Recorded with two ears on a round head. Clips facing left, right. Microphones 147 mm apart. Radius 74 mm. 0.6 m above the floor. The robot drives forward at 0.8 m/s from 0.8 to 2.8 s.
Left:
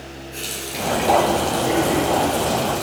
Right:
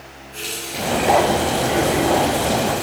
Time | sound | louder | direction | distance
0.3 | a running tap | right 2 dB | 40° left (ahead or behind) | 6 m